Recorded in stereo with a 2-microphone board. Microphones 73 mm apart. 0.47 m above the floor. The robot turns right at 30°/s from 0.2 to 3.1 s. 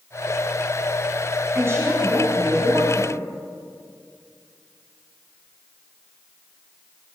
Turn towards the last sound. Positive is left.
turn(degrees=-100)